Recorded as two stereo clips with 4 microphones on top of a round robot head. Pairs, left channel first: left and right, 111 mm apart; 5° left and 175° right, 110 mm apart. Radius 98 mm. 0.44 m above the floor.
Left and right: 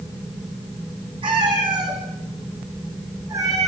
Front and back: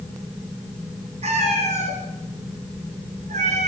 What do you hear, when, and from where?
1.2 s a cat meowing: 140° right, 4 m; by 3.7 s 160° right, 4 m